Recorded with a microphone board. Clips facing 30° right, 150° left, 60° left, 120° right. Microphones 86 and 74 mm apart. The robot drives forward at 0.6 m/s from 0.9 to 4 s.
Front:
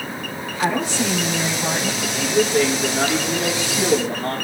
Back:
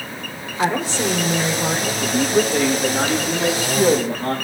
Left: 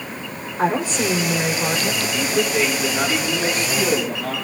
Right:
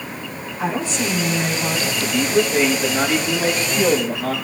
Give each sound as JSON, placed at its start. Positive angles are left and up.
{"t": 0.6, "sound": "a woman speaking", "azimuth_deg": 100, "distance_m": 3.0}
{"t": 2.0, "sound": "a man speaking", "azimuth_deg": 170, "distance_m": 9.0}